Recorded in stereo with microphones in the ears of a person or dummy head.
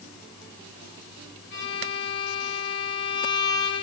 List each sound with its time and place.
1.5 s a violin: 65° left (ahead or behind), 2 m